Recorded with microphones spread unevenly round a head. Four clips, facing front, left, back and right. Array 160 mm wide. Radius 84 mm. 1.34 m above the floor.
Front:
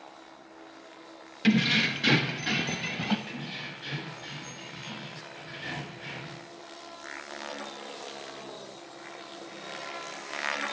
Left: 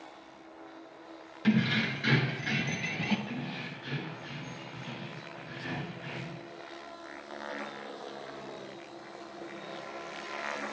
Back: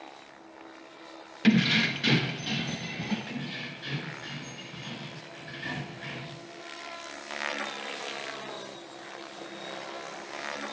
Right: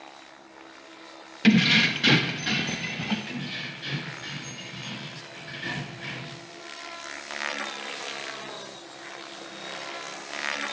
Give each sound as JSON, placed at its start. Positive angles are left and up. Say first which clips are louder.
{"t": 1.4, "sound": "keys jangling", "louder": "right 7 dB, back 1 dB", "azimuth_deg": -95, "distance_m": 0.9}
{"t": 3.3, "sound": "keys jangling", "louder": "right 2 dB, back 2 dB", "azimuth_deg": -125, "distance_m": 6.5}